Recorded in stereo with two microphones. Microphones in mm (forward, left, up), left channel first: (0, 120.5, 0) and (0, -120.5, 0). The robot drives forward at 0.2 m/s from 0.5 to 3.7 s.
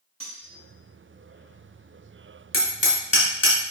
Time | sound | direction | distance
0.2 | cutlery clinking | 65° right (ahead or behind) | 4 m
2.5 | hammering | 60° left (ahead or behind) | 3 m